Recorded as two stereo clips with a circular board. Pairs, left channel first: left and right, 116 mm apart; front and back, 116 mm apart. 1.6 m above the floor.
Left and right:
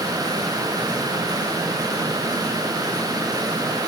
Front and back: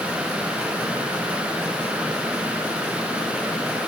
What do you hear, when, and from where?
Only background noise.